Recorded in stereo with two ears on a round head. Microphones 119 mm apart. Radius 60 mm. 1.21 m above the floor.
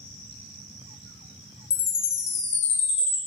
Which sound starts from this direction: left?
A chime, at 1.7 s.